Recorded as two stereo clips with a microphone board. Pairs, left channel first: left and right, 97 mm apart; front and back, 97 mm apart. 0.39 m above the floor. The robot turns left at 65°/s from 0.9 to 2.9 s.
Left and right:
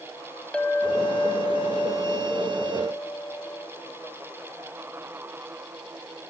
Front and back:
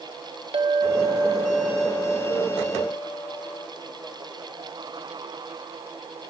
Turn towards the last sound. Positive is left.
turn(degrees=40)